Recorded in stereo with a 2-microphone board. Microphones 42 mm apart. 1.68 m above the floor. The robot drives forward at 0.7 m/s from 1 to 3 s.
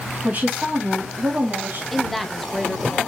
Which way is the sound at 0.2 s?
40° right (ahead or behind).